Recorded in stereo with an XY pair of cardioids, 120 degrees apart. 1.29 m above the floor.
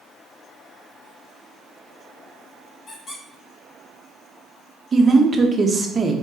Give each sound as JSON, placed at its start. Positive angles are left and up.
{"t": 2.9, "sound": "a squeak", "azimuth_deg": 45, "distance_m": 2.5}
{"t": 4.9, "sound": "a woman speaking", "azimuth_deg": -30, "distance_m": 1.0}